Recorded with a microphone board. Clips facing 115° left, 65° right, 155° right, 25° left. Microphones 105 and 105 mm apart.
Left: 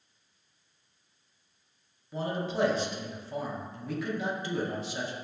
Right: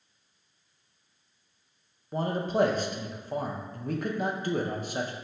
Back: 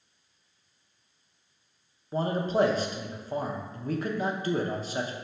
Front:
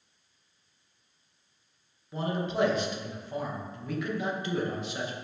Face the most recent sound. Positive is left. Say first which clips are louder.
# right 4 dB, back 4 dB
turn(degrees=-110)